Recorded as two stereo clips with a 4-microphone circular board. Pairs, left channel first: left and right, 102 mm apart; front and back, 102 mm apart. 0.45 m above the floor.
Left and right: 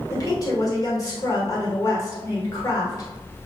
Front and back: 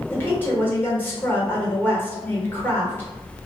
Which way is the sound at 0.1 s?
60° left.